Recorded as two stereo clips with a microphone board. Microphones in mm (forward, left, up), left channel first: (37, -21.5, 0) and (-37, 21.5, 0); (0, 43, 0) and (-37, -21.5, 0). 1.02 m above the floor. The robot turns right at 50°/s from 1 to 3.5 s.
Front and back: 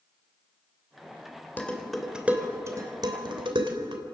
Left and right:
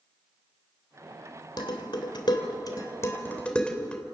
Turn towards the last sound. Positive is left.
turn(degrees=135)